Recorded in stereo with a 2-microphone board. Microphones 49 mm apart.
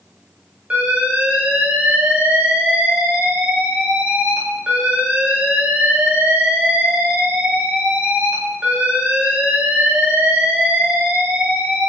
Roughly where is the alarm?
Right.